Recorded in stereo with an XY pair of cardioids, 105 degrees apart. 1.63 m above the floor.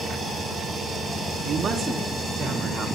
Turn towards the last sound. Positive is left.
turn(degrees=-55)